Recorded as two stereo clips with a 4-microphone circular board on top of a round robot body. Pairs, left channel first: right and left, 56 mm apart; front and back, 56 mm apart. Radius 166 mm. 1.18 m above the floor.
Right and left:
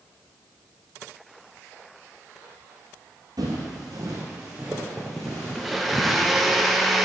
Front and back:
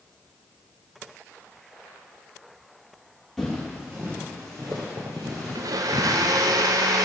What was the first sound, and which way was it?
Footsteps, 85° left.